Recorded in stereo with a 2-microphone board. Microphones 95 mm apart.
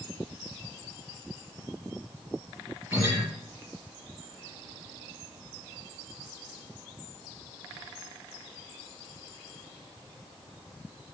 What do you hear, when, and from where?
2.9 s a guitar: 20° right (ahead or behind), 6 m